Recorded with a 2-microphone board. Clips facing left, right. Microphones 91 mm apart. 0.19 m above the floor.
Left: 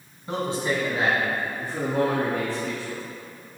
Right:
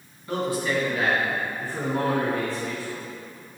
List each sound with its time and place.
0.3 s a man speaking: 25° left (ahead or behind), 1.3 m; by 3.0 s 5° left (ahead or behind), 3.5 m